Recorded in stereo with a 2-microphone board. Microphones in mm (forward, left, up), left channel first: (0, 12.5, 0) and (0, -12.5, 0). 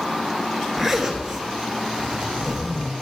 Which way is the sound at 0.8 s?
10° right (ahead or behind).